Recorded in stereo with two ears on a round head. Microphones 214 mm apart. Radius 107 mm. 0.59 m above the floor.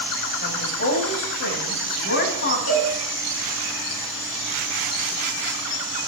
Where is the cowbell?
70° left (ahead or behind), 4.5 m.